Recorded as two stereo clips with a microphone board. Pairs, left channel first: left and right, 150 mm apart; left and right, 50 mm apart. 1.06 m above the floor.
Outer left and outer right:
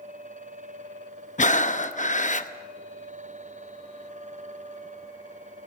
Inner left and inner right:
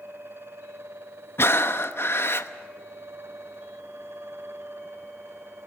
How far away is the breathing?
About 0.8 m.